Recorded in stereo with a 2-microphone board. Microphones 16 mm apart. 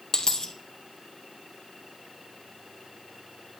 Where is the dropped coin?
40° left (ahead or behind), 1.3 m.